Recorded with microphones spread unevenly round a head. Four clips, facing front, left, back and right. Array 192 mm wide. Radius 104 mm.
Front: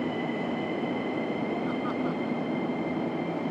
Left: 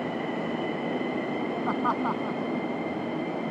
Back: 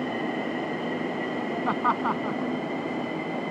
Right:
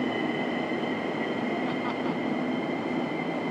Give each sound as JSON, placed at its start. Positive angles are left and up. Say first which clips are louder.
{"t": 1.6, "sound": "laughter", "louder": "left 3 dB, back 4 dB", "azimuth_deg": 155}